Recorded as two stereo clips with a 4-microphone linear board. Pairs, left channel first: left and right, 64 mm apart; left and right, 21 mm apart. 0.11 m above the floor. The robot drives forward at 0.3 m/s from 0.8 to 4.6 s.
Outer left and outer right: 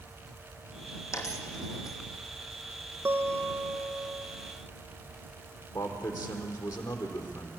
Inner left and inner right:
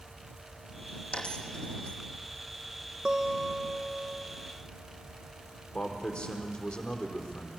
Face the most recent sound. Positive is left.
turn(degrees=70)  # may be behind; listen again after turning